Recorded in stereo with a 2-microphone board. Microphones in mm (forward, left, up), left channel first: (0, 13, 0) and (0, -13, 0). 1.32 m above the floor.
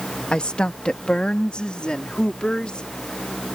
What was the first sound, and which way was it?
A woman speaking, 40° left (ahead or behind).